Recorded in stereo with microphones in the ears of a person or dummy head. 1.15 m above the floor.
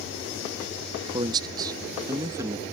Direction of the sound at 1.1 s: 20° right (ahead or behind).